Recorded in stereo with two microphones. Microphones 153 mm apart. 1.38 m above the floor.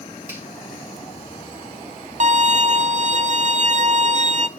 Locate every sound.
0.3 s a finger snap: 15° right (ahead or behind), 5.5 m
2.2 s a violin: 50° right (ahead or behind), 0.6 m